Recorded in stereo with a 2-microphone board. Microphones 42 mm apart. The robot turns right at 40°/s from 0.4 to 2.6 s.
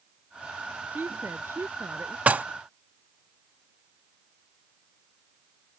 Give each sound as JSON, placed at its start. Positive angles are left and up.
{"t": 0.9, "sound": "a woman speaking", "azimuth_deg": -130}
{"t": 2.3, "sound": "dishes clattering", "side_deg": -35}